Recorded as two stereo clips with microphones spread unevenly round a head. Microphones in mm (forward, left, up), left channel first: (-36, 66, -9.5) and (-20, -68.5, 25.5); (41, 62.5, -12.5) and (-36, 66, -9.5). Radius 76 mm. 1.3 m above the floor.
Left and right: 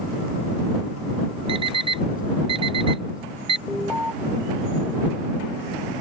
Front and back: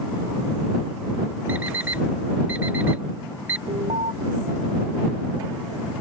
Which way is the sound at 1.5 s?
115° right.